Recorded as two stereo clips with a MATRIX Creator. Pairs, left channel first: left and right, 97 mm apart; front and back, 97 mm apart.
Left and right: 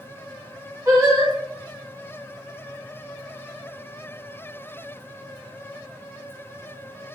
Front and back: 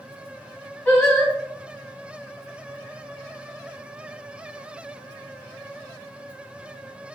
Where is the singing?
65° right, 1.6 m.